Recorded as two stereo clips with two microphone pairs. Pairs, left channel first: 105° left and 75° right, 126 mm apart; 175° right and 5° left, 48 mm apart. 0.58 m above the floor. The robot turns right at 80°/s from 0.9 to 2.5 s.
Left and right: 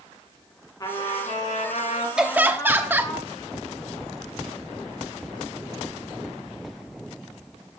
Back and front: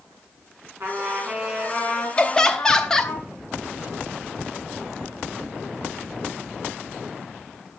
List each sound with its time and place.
0.8 s a trumpet: 40° left, 3 m; by 3.2 s 170° left, 3 m
2.2 s laughter: 155° right, 0.8 m; by 3.1 s 125° right, 0.8 m